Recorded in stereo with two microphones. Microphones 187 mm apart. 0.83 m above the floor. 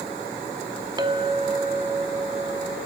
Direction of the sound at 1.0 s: 25° right (ahead or behind).